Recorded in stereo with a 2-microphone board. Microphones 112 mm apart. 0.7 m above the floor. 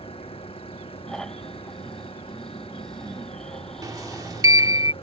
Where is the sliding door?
35° right (ahead or behind).